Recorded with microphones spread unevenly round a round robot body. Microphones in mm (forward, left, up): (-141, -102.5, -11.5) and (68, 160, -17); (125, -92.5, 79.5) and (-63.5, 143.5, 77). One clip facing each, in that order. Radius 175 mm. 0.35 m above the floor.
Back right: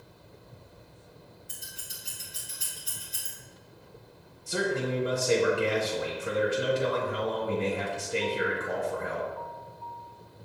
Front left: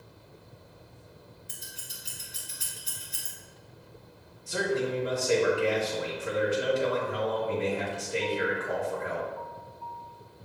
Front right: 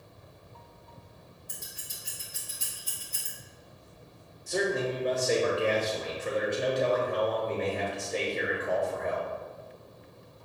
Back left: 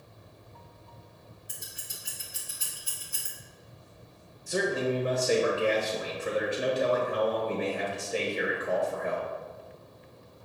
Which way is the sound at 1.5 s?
50° left.